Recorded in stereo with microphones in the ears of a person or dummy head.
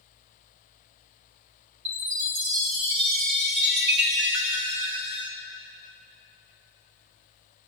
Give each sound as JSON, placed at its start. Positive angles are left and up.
{"t": 1.9, "sound": "a chime", "side_deg": -60, "distance_m": 1.9}